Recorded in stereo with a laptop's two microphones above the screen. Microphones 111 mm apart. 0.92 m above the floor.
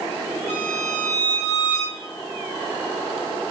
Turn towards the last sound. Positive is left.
turn(degrees=-75)  # may be behind; listen again after turning